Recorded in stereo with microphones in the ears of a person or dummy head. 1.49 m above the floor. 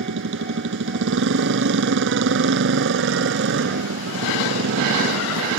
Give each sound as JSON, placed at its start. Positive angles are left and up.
{"t": 0.0, "sound": "a motorcycle", "side_deg": -80}